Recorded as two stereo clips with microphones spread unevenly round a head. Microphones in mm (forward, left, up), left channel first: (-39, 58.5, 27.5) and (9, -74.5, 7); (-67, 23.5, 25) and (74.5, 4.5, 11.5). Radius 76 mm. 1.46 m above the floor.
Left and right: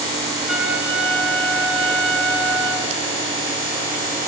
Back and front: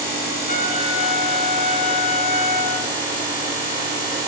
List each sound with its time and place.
0.5 s a trumpet: 165° right, 1.7 m